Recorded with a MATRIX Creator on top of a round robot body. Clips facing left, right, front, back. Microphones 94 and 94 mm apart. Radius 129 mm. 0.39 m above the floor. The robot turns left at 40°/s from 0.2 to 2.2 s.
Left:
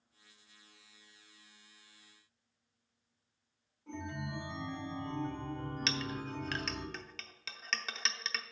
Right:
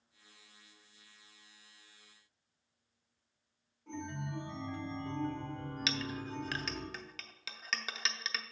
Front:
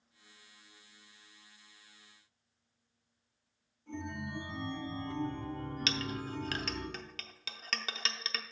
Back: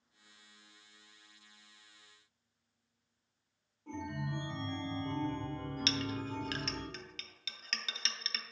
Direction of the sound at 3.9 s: Straight behind.